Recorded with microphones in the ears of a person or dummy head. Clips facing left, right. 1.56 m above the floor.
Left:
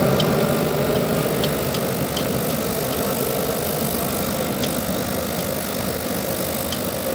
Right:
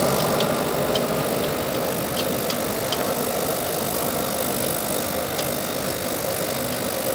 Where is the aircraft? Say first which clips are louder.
Left 3 dB; 25° left (ahead or behind); by 7.1 s 30° left (ahead or behind).